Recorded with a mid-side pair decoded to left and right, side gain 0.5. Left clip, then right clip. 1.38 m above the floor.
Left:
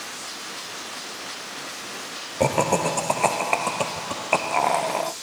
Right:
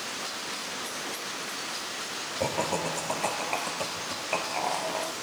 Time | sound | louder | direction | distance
2.4 | laughter | left 9 dB | 55° left | 0.6 m